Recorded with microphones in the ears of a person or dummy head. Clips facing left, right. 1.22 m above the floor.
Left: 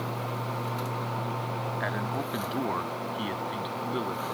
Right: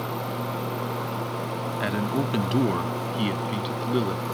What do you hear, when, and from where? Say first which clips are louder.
1.8 s a man speaking: right 9 dB; 40° right (ahead or behind); by 4.2 s 35° right (ahead or behind)